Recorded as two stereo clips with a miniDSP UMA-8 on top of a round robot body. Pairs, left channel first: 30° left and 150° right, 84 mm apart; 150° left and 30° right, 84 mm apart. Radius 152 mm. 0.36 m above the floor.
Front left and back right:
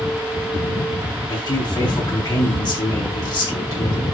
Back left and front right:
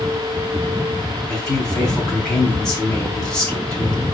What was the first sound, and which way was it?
A man speaking, 70° left.